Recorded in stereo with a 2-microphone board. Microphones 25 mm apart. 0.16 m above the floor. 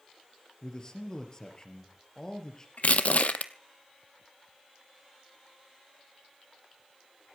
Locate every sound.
0.6 s a man speaking: 30° left (ahead or behind), 3.5 m
2.8 s crushing: 70° left (ahead or behind), 1.0 m